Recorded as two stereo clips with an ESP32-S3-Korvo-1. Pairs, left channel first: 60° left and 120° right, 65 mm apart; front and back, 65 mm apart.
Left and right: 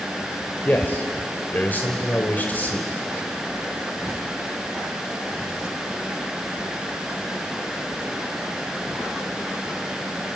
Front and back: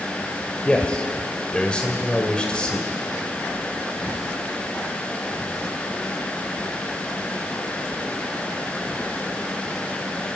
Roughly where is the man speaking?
Ahead left.